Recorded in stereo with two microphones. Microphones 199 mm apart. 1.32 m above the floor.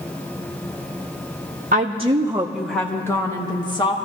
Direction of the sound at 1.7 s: 45° right (ahead or behind).